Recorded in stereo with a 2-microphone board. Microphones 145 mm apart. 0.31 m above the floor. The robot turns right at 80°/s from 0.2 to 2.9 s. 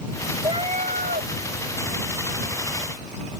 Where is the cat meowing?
150° right; by 1.3 s 80° right.